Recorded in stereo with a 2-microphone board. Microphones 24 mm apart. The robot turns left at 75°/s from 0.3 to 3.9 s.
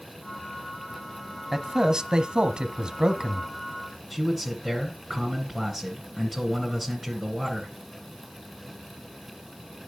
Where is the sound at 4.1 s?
15° right (ahead or behind), 2 m.